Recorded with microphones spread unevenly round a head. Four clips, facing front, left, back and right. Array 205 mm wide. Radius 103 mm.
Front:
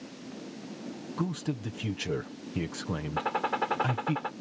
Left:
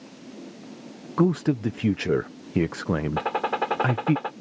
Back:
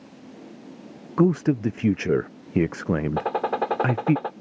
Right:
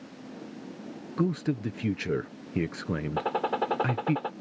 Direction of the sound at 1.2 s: 160° left.